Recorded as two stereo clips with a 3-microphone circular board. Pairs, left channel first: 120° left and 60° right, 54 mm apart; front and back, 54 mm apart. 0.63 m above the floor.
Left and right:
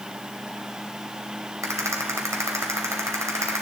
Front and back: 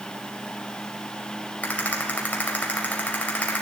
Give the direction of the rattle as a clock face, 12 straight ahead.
2 o'clock.